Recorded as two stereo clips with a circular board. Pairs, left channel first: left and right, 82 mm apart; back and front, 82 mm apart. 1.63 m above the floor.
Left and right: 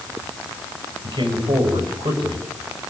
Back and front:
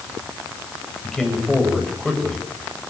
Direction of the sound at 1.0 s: 100° right.